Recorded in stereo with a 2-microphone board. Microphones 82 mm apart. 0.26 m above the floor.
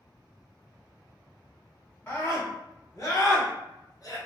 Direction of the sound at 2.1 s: 30° left (ahead or behind).